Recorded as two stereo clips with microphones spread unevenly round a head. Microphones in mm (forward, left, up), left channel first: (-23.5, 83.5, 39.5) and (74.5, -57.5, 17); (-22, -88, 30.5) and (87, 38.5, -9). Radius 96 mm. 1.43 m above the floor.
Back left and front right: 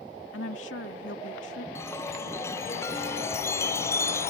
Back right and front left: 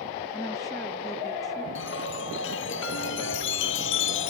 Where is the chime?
160° right.